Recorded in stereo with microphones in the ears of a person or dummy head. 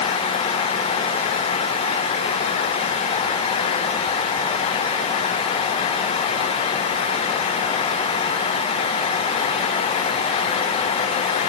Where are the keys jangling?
No keys jangling in this recording.